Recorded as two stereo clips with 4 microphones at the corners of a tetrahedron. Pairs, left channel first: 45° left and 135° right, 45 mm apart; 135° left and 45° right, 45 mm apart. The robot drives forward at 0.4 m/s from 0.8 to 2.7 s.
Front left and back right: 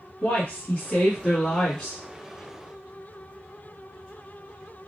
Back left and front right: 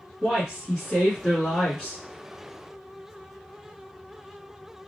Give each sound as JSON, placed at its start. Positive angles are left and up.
{"t": 0.2, "sound": "a woman speaking", "azimuth_deg": 50, "distance_m": 1.1}